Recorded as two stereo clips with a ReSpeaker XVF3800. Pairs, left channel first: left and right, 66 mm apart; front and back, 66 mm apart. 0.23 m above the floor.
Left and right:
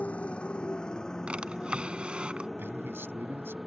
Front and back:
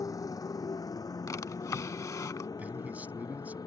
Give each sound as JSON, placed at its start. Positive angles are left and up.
{"t": 0.0, "sound": "a motorcycle", "azimuth_deg": 20}
{"t": 1.3, "sound": "a drawer", "azimuth_deg": -20}
{"t": 2.6, "sound": "a man speaking", "azimuth_deg": -125}